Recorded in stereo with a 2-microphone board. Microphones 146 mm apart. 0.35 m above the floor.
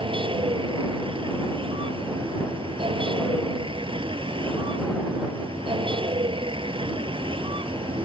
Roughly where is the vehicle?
Right.